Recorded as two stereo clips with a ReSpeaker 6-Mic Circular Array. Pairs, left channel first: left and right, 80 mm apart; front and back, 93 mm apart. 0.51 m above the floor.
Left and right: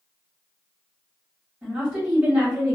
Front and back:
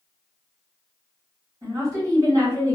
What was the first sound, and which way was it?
A woman speaking, 150° right.